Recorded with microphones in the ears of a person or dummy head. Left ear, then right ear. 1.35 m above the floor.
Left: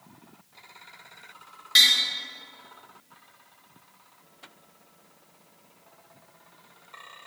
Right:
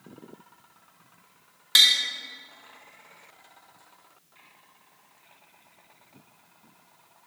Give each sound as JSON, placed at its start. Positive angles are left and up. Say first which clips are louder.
{"t": 1.8, "sound": "tapping", "louder": "even", "side_deg": -40, "distance_m": 1.0}